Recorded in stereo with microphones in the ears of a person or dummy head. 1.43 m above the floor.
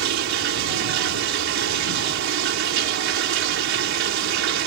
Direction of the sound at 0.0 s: 65° right (ahead or behind).